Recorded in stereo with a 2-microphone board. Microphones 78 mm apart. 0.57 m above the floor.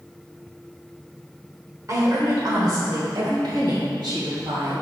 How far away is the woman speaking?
About 1.5 m.